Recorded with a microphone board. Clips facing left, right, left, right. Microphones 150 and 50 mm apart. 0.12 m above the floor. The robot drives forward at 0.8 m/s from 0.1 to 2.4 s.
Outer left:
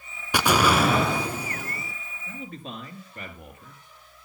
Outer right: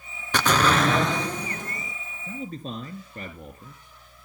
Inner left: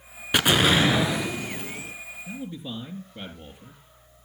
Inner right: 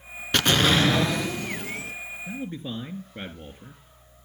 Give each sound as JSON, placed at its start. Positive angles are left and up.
{"t": 0.3, "sound": "an explosion", "side_deg": 10, "distance_m": 0.9}
{"t": 2.3, "sound": "a man speaking", "side_deg": -35, "distance_m": 2.5}